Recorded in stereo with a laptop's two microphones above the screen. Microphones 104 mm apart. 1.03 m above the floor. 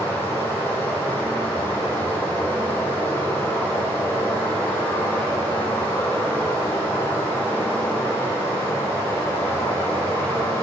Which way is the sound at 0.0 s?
15° left (ahead or behind).